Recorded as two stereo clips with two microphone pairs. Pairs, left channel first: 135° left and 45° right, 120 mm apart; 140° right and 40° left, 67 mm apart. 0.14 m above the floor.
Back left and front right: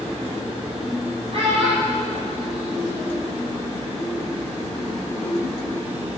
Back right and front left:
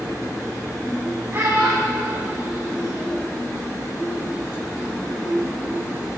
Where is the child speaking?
15° right, 2.5 m.